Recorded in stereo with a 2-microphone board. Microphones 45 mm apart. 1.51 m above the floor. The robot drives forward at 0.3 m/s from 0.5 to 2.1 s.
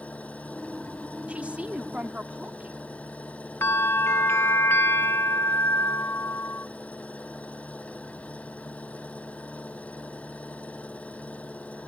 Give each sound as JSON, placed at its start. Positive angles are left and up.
{"t": 0.0, "sound": "an engine running", "side_deg": 30}
{"t": 1.3, "sound": "a woman speaking", "side_deg": -30}
{"t": 3.6, "sound": "a bell", "side_deg": 65}